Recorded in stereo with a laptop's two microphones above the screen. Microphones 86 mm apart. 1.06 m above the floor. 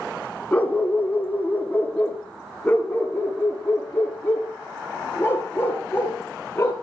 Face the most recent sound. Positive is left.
turn(degrees=25)  # may be behind; listen again after turning